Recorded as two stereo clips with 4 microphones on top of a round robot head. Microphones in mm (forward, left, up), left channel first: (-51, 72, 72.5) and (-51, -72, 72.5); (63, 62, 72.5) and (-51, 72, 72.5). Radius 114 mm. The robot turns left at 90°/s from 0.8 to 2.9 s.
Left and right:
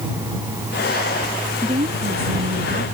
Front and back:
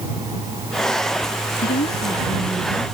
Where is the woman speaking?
15° right; by 2.8 s 125° right.